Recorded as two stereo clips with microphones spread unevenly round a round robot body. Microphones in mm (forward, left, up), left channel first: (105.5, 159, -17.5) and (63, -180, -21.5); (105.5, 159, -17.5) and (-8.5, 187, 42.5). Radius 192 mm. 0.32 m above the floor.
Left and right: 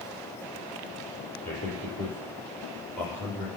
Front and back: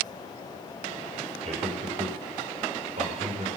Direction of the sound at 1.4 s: 170° left.